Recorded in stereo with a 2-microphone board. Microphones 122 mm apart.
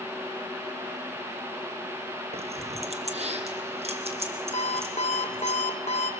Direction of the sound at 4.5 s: 60° left (ahead or behind).